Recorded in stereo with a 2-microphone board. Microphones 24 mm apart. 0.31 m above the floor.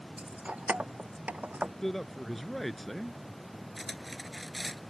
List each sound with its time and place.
0.2 s keys jangling: 80° right; by 1.7 s 85° right
1.8 s a man speaking: 5° left (ahead or behind)
3.8 s cutlery clinking: centre (ahead or behind)